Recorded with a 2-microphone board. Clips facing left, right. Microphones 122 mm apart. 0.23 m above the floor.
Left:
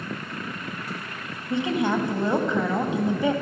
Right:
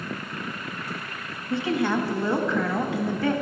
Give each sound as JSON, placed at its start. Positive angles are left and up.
{"t": 1.5, "sound": "a woman speaking", "side_deg": 20, "distance_m": 1.0}